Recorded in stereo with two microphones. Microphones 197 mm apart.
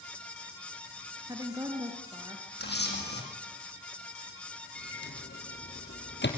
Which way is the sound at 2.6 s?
60° left (ahead or behind).